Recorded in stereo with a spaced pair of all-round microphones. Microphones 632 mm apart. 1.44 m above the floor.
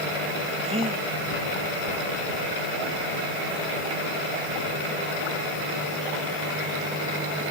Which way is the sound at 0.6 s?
10° right (ahead or behind).